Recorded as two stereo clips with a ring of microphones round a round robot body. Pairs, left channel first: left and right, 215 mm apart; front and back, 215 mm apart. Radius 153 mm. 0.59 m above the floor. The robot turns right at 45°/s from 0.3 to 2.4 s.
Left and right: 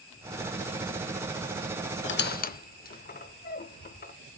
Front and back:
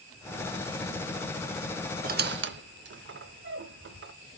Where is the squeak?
125° left, 0.6 m; by 4.1 s 145° left, 0.6 m.